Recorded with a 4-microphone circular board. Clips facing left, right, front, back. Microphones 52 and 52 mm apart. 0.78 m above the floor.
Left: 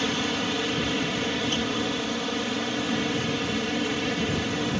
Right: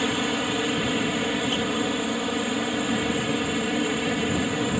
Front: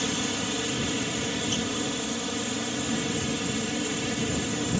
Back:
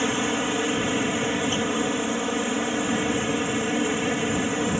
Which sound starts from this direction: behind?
A helicopter, at 0.0 s.